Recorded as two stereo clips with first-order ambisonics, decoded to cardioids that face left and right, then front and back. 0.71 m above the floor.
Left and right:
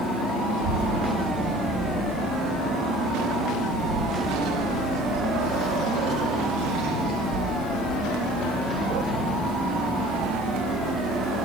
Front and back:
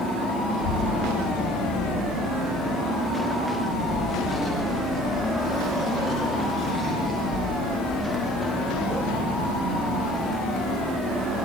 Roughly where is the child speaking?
Ahead right.